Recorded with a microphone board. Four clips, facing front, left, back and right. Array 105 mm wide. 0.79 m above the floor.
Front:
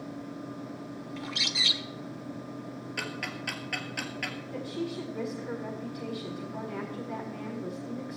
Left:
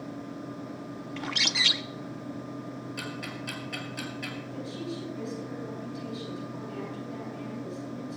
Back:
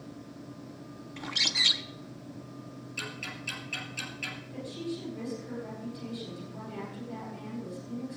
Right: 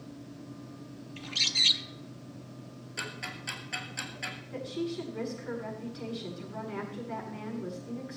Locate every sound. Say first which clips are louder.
1.2 s a bird: left 7 dB, back 1 dB; 100° left, 0.7 m
3.0 s ticking: left 4 dB, front 4 dB; 15° right, 2.5 m
4.5 s a woman speaking: right 5 dB, front 2 dB; 50° right, 8.5 m